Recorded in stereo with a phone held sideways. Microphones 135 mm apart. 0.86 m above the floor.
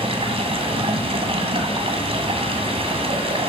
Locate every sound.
0.0 s running water: 50° right (ahead or behind), 1.9 m